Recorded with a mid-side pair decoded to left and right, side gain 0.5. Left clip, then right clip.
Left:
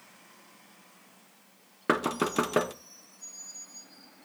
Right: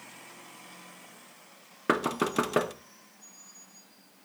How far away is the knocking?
About 0.9 m.